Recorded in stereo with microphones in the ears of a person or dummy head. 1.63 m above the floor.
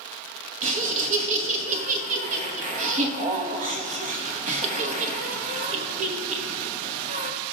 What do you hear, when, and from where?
0.6 s laughter: 40° right (ahead or behind), 1.0 m